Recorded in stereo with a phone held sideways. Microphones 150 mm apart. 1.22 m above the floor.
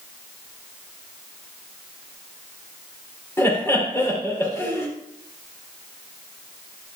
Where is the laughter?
15° left (ahead or behind), 3 m.